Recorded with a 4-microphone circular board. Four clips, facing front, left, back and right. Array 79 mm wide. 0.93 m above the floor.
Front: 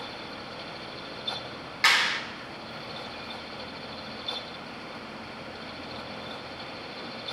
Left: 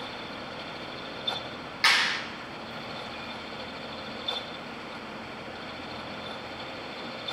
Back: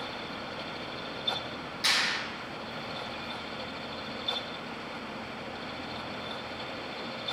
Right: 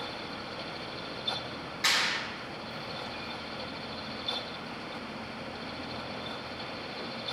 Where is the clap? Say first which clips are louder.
Left 5 dB, front 6 dB; 30° left, 3 m.